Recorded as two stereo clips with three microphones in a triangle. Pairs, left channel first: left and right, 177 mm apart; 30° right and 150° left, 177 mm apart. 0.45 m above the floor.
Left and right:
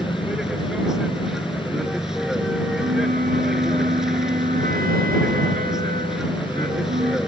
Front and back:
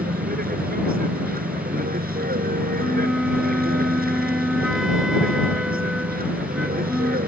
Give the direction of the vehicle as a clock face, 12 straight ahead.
6 o'clock.